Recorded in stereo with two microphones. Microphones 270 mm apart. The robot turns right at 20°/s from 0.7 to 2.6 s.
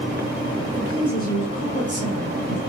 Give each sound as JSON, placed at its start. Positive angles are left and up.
{"t": 0.7, "sound": "a woman speaking", "azimuth_deg": -95, "distance_m": 1.4}